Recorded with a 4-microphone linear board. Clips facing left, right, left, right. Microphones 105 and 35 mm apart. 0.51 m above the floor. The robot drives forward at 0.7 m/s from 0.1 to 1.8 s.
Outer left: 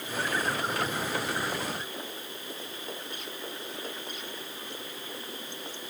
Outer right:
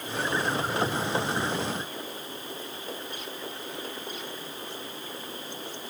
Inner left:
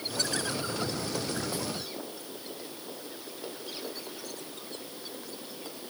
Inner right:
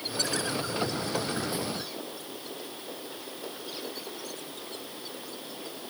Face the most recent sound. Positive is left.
No sound to turn to.